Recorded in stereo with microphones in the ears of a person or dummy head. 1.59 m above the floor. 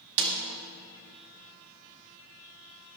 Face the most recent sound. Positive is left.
turn(degrees=-65)  # may be behind; listen again after turning